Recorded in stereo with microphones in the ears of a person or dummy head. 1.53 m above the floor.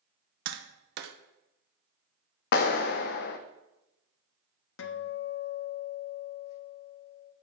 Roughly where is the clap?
Left.